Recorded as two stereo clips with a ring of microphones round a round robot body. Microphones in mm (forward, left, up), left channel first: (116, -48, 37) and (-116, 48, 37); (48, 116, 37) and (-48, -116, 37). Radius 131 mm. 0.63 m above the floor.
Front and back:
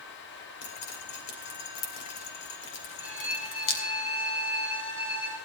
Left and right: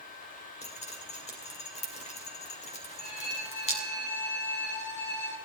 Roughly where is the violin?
Ahead.